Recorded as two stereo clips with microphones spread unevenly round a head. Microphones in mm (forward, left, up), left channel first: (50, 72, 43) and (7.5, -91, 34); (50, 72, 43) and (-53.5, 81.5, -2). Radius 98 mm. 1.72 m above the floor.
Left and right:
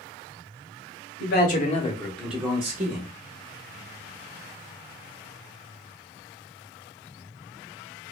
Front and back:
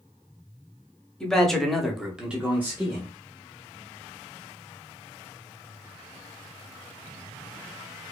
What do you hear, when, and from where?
1.2 s a man speaking: 60° left, 0.8 m; by 3.1 s 95° right, 0.7 m